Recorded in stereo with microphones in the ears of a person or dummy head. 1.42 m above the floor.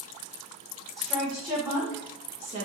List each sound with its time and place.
1.0 s a woman speaking: centre (ahead or behind), 1.3 m; by 2.6 s 40° right (ahead or behind), 0.9 m